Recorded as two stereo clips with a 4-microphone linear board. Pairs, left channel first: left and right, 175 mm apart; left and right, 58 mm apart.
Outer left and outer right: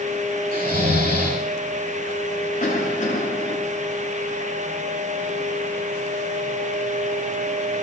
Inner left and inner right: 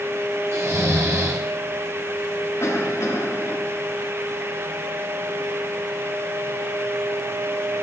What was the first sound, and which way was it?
Snoring, 65° right (ahead or behind).